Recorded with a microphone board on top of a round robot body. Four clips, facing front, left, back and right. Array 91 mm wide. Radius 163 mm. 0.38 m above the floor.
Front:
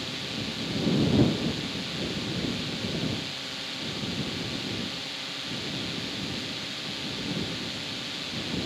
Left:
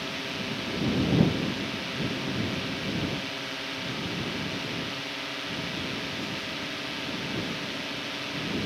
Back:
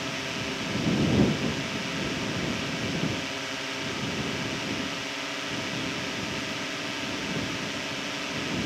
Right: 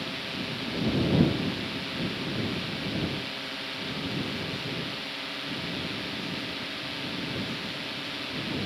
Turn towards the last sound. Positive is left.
turn(degrees=170)